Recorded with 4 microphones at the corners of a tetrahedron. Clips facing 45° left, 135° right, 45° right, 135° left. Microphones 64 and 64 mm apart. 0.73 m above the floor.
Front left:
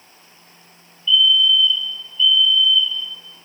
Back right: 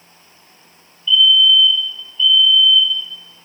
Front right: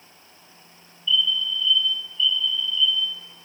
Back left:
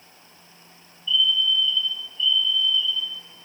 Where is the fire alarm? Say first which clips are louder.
Back right 3 dB, back left 1 dB; 125° left, 2.0 m.